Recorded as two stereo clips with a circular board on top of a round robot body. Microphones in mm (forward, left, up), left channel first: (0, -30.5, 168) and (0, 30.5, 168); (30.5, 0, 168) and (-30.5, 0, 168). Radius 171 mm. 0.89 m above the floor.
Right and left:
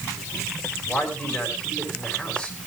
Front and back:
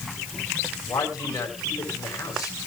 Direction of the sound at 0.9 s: 15° right.